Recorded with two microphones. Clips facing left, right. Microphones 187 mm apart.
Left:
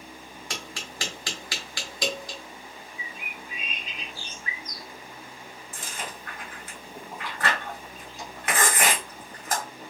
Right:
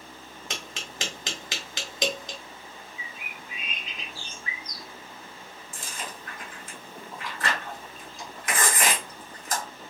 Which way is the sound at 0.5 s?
20° right (ahead or behind).